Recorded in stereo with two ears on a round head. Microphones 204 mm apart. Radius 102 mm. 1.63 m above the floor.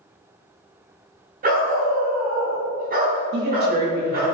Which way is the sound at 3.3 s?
45° right (ahead or behind).